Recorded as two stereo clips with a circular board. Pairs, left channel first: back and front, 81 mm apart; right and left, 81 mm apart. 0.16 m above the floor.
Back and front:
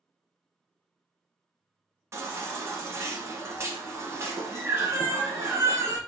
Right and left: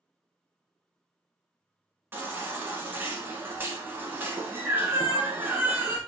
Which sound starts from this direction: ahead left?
A baby crying, at 2.1 s.